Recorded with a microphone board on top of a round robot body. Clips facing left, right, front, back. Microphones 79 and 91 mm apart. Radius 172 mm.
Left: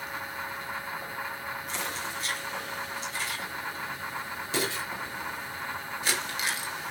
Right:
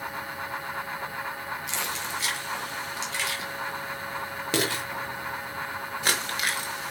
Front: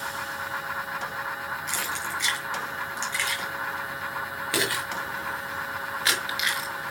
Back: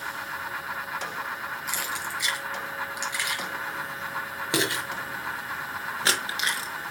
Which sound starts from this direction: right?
Keys jangling, at 1.7 s.